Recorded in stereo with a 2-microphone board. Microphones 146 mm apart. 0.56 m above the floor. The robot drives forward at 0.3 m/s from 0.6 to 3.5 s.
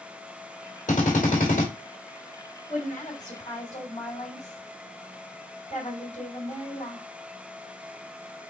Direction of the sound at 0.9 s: 60° left (ahead or behind).